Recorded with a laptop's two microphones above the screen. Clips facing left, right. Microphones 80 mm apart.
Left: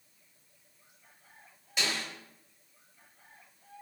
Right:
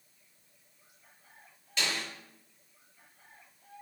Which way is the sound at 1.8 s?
15° left (ahead or behind).